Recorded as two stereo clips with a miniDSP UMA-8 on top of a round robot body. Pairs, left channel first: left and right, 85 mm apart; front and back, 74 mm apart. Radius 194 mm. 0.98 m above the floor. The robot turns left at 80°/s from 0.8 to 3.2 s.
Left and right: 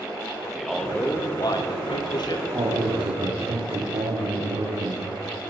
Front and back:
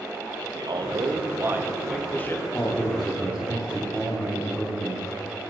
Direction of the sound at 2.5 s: 50° right.